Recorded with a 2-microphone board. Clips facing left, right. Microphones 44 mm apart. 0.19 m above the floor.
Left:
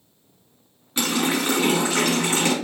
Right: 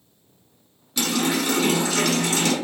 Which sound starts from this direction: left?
A running tap, at 1.0 s.